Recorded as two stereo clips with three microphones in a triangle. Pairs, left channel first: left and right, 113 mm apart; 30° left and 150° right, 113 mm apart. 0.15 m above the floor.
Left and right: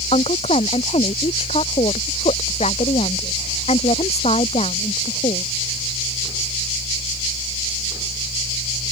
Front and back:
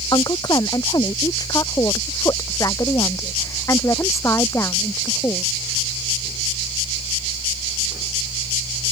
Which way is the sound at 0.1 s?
80° left.